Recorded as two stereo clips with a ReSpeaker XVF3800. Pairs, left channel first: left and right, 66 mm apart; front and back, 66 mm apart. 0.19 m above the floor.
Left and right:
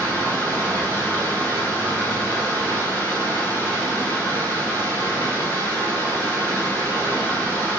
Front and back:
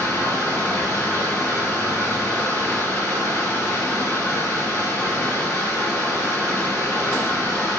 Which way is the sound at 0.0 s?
35° left.